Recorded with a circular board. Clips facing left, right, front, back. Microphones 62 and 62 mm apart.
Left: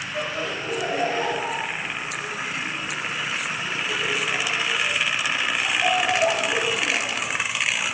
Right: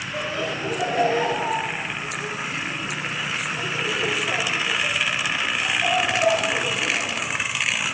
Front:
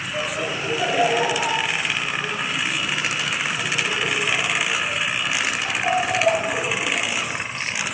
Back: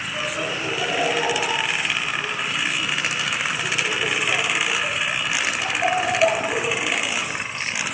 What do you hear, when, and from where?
0.1 s laughter: 60° right, 2.5 m; by 7.2 s 150° left, 1.5 m